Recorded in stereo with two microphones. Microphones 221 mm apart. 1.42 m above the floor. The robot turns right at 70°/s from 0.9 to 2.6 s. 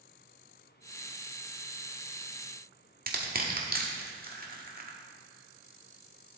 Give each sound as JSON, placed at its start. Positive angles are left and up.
{"t": 3.1, "sound": "crushing", "side_deg": -40, "distance_m": 1.3}